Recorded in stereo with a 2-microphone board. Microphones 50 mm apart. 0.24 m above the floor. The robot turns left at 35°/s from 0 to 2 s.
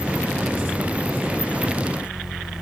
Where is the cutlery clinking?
I don't hear cutlery clinking.